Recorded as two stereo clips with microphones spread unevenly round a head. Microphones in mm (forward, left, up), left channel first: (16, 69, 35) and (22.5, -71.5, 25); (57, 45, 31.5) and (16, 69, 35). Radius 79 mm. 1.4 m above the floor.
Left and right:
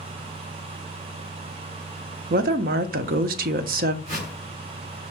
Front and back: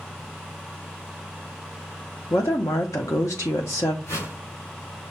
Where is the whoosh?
50° right, 3.5 m.